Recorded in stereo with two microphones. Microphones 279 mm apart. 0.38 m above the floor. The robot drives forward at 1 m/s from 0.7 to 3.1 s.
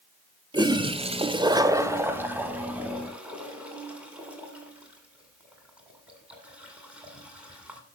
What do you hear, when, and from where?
0.5 s a toilet flushing: 15° right (ahead or behind), 0.6 m; by 7.8 s 5° right (ahead or behind), 2 m